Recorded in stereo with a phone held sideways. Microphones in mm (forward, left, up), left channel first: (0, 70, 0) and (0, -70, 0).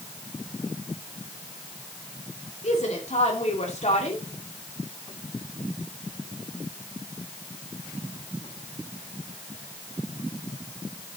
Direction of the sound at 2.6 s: 55° left (ahead or behind).